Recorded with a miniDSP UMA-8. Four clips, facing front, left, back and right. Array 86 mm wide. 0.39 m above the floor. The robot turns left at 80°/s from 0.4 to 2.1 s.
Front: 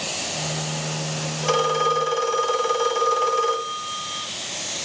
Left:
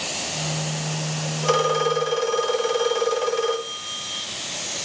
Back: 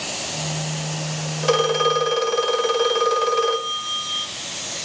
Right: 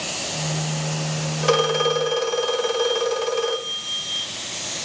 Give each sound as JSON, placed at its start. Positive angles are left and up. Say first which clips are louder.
{"t": 1.4, "sound": "a phone ringing", "louder": "right 1 dB, back 2 dB", "azimuth_deg": -120, "distance_m": 1.1}